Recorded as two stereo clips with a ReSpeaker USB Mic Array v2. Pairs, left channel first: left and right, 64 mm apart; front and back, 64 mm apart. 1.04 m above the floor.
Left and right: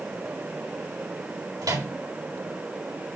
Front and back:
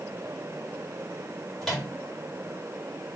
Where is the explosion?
I don't hear an explosion.